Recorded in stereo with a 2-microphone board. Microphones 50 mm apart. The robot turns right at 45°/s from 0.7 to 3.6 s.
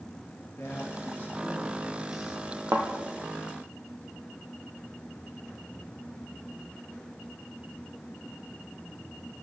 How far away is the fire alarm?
No fire alarm in this recording.